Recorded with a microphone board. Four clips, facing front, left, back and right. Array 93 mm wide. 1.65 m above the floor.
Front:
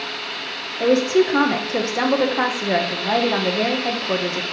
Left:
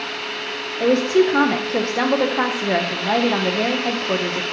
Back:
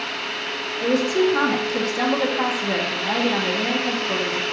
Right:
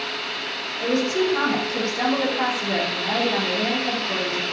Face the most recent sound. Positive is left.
turn(degrees=50)